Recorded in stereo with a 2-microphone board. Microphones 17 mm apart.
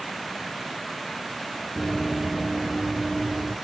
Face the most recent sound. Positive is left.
turn(degrees=-50)  # may be behind; listen again after turning